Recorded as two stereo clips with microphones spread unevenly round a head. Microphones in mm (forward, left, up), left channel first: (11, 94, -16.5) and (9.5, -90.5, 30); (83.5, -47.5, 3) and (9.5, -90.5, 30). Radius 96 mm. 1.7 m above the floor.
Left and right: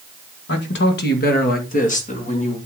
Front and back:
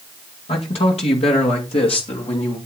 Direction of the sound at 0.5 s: 60° left.